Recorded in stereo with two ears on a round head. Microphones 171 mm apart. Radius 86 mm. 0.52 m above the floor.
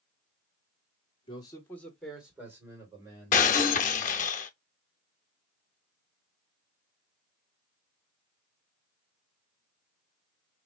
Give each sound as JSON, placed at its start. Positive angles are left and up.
{"t": 1.3, "sound": "a man speaking", "side_deg": 30, "distance_m": 1.7}
{"t": 3.3, "sound": "breaking glass", "side_deg": 45, "distance_m": 0.7}